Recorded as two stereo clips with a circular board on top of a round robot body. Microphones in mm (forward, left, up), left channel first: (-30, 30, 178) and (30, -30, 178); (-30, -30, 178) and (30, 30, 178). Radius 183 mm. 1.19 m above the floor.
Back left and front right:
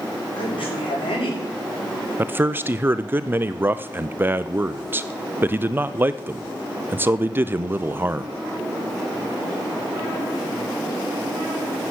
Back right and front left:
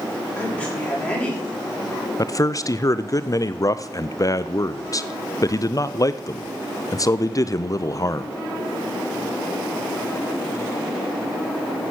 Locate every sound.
0.4 s a woman speaking: 155° left, 7 m
2.2 s a man speaking: 100° right, 0.7 m